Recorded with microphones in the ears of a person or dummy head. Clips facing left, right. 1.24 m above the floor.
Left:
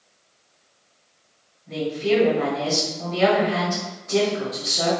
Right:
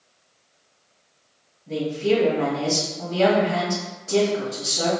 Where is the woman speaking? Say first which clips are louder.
Right 1 dB; 70° right (ahead or behind), 1.6 m.